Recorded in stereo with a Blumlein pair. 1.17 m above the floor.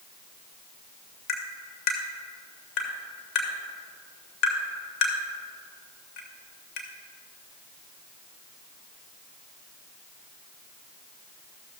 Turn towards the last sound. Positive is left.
turn(degrees=40)